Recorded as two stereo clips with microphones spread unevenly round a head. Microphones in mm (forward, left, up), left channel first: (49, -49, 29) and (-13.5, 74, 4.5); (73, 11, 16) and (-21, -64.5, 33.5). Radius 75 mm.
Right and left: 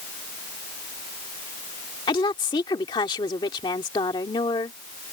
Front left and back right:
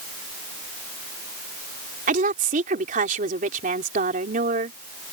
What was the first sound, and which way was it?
A woman speaking, 125° right.